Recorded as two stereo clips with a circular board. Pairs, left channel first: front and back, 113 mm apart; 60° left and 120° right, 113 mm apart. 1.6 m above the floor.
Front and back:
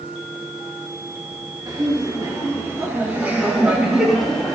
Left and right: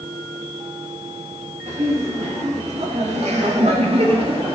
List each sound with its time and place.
1.7 s laughter: 125° right, 3 m; by 4.6 s 85° right, 2 m